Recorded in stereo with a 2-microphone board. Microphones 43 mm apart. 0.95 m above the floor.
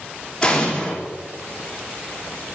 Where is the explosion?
20° left (ahead or behind), 3 m.